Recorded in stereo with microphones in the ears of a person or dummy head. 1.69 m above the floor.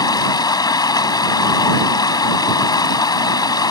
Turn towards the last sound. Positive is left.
turn(degrees=25)  # may be behind; listen again after turning